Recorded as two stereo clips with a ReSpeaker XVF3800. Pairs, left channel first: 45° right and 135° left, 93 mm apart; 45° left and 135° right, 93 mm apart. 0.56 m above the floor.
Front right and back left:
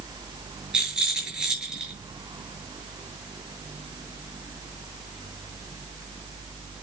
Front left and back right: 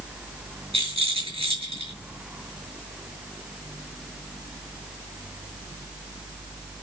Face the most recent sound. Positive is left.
turn(degrees=-145)